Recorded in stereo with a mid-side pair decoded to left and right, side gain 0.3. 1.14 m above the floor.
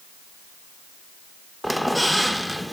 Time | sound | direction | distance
1.6 | a squeak | 5° left | 0.9 m